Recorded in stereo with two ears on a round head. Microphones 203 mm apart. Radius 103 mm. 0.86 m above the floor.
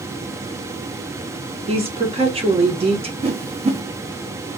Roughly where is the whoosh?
Right.